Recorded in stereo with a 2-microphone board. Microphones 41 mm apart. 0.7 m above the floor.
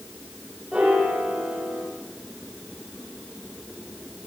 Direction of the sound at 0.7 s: 20° right (ahead or behind).